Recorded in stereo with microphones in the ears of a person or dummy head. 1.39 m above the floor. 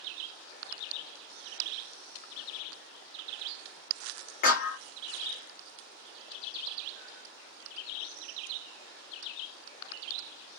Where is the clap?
55° left (ahead or behind), 0.9 m.